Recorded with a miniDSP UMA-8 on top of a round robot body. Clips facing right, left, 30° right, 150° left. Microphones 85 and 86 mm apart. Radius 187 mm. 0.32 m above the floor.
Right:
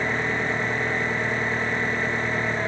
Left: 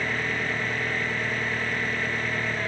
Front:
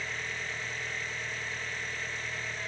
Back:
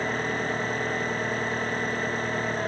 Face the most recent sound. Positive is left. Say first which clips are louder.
# right 3 dB, back 10 dB
turn(degrees=-160)